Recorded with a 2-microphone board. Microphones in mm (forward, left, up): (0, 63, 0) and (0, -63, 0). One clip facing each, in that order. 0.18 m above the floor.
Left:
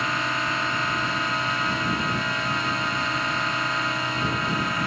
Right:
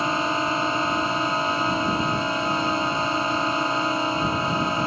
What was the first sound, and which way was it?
A drone, 30° right (ahead or behind).